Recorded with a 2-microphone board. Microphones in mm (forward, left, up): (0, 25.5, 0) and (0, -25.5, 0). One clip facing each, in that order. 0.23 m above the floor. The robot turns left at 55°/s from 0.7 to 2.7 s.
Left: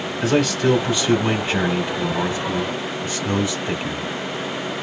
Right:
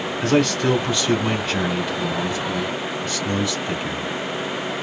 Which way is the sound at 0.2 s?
5° left (ahead or behind).